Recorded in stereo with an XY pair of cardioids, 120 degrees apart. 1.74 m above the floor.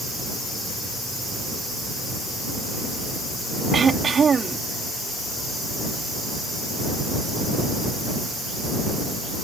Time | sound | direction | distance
3.7 | throat clearing | 35° right | ?